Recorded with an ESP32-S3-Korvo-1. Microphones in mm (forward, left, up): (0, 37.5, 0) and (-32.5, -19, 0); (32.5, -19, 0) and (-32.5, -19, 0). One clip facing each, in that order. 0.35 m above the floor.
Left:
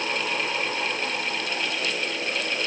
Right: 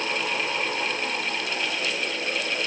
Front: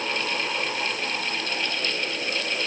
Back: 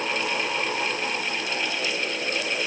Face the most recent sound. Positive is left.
No sound to turn to.